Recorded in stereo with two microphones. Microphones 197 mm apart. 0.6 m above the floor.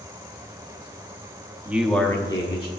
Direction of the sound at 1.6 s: 10° right (ahead or behind).